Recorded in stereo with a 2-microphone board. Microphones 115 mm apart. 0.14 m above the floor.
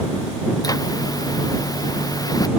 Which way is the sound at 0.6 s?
30° left (ahead or behind).